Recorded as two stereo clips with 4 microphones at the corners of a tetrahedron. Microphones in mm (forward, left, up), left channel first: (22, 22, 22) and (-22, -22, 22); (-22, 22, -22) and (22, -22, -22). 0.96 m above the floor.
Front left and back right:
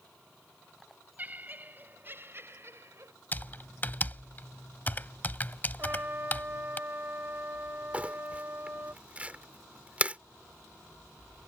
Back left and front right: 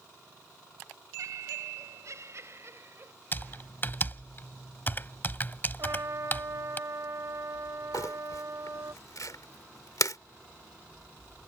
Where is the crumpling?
155° left.